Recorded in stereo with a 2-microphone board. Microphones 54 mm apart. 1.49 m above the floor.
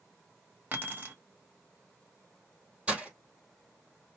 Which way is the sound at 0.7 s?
35° right (ahead or behind).